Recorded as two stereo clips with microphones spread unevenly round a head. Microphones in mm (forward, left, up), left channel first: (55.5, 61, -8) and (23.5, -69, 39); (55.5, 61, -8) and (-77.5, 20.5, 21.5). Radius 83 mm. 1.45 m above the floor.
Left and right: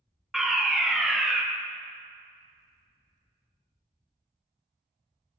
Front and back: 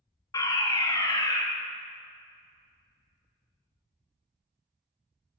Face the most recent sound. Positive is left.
turn(degrees=15)